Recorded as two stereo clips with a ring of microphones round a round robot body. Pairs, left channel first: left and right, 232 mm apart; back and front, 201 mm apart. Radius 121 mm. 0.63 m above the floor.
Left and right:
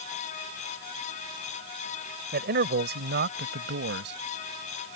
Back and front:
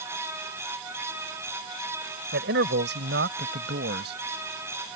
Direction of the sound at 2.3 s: 40° right.